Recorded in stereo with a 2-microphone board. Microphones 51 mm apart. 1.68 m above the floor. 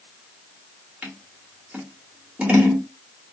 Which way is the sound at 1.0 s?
25° right (ahead or behind).